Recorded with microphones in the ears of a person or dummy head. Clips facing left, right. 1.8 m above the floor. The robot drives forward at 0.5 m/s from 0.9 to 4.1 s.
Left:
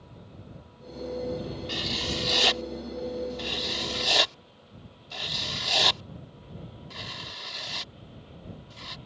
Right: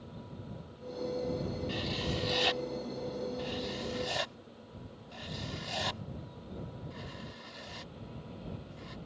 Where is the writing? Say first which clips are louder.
Left 2 dB; 65° left (ahead or behind); by 9.0 s 75° left (ahead or behind).